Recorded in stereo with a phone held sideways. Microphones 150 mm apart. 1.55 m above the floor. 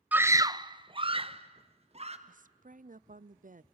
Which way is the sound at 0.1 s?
10° right (ahead or behind).